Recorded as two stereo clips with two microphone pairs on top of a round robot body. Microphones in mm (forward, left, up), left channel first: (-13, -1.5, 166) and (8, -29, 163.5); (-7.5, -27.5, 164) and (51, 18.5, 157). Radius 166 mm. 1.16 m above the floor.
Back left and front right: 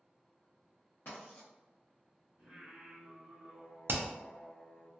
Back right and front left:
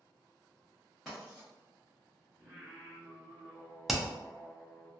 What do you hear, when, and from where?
1.1 s writing: 140° left, 0.7 m
2.4 s singing: 90° right, 1.2 m
3.9 s hammering: 45° right, 0.5 m